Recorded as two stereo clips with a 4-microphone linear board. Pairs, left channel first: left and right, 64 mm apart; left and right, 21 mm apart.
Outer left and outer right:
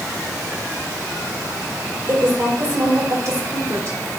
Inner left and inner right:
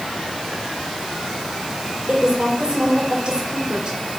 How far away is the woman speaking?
About 3 m.